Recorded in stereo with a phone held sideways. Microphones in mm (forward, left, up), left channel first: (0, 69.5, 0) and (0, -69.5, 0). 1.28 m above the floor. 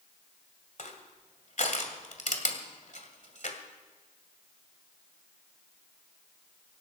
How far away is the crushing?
About 1.9 m.